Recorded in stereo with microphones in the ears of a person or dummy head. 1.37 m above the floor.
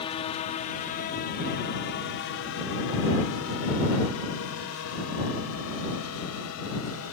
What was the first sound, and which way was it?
A drone, 30° left (ahead or behind).